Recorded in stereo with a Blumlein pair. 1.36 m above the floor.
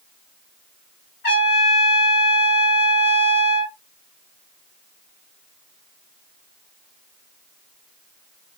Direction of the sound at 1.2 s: 50° left.